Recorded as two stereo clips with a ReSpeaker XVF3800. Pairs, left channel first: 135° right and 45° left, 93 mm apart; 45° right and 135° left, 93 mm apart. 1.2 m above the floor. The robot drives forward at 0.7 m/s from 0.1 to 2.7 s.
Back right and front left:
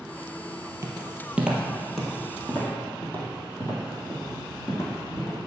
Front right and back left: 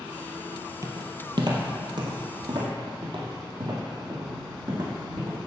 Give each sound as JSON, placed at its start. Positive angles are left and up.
{"t": 0.8, "sound": "footsteps", "azimuth_deg": 95, "distance_m": 1.8}